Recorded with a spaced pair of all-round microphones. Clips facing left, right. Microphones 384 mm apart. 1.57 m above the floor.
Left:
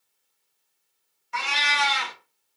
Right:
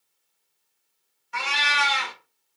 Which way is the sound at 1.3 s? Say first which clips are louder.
Even; 10° left (ahead or behind).